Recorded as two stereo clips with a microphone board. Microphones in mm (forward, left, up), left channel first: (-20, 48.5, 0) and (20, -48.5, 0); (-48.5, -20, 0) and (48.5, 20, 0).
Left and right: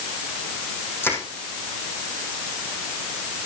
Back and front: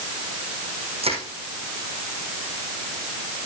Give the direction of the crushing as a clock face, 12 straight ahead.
11 o'clock.